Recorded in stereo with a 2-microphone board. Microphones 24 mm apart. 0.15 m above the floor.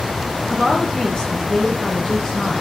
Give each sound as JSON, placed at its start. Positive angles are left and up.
{"t": 0.5, "sound": "a woman speaking", "side_deg": 35, "distance_m": 3.5}